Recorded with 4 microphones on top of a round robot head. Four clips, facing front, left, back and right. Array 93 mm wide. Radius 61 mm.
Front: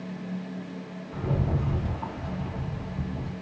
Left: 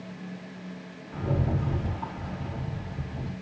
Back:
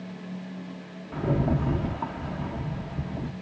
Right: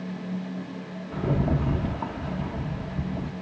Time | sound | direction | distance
1.1 | a rattle | 135° right | 0.7 m